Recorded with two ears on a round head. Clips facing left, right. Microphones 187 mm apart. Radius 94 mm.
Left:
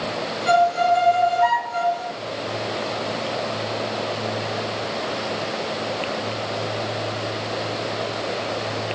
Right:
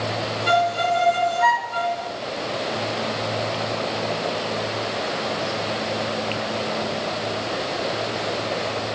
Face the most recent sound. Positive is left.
turn(degrees=-55)  # may be behind; listen again after turning